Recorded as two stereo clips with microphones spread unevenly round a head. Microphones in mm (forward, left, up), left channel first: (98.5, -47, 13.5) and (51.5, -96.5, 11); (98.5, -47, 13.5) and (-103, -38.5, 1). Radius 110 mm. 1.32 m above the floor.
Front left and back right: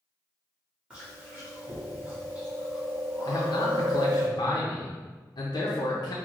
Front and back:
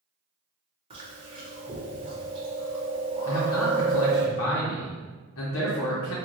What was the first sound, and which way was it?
Chewing, 175° left.